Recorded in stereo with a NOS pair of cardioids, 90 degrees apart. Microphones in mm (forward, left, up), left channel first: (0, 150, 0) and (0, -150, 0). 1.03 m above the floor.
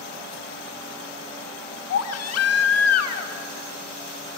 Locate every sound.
1.9 s a baby crying: 55° left, 1.3 m